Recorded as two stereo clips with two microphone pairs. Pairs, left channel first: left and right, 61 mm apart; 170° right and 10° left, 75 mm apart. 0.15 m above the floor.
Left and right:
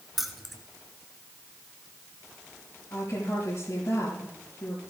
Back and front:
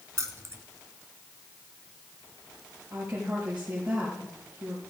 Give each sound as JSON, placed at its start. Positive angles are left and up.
{"t": 0.2, "sound": "keys jangling", "azimuth_deg": -5, "distance_m": 1.2}
{"t": 2.9, "sound": "a woman speaking", "azimuth_deg": 80, "distance_m": 4.5}